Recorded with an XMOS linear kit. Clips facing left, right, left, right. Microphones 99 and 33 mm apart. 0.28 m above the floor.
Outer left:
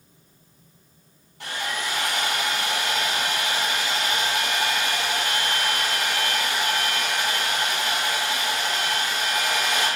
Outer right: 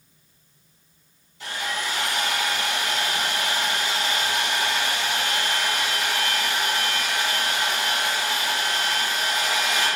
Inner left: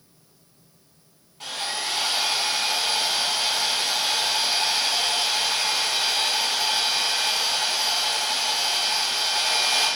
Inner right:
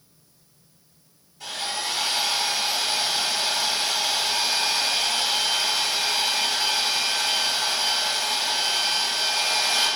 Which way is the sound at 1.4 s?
55° left (ahead or behind).